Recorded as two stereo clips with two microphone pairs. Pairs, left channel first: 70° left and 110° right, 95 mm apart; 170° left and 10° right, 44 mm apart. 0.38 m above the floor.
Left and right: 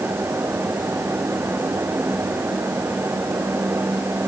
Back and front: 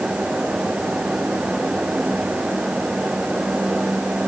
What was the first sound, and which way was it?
Only background noise.